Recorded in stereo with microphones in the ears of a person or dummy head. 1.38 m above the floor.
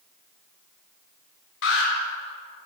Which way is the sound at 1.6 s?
70° left (ahead or behind).